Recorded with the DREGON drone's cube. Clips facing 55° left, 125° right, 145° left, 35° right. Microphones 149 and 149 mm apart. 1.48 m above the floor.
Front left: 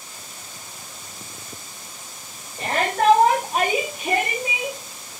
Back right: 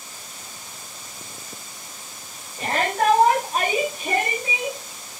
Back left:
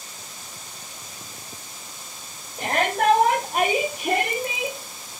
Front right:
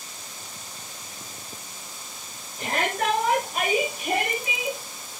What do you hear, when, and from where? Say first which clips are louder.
2.6 s a shout: front left 1 dB, back left 4 dB; 120° left, 4 m; by 4.8 s 130° left, 6 m